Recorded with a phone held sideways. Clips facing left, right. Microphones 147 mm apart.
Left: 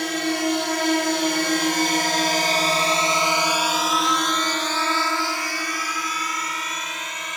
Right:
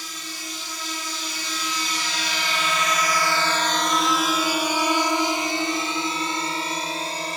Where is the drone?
70° left (ahead or behind); by 7.4 s 35° right (ahead or behind).